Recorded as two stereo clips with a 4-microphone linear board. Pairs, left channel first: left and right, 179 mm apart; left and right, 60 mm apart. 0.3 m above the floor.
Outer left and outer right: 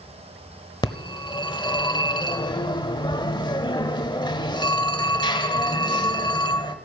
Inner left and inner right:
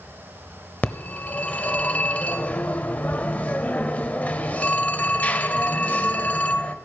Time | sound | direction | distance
0.8 | a phone ringing | 25° left (ahead or behind) | 0.9 m